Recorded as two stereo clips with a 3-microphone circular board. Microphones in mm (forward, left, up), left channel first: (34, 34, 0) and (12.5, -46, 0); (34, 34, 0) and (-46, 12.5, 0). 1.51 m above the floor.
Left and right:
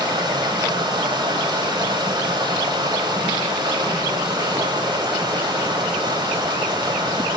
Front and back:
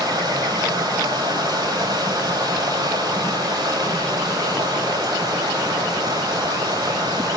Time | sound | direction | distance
0.0 | running water | 120° right | 9.5 m